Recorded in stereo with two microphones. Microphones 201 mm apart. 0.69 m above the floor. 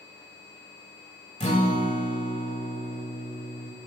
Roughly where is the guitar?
Left.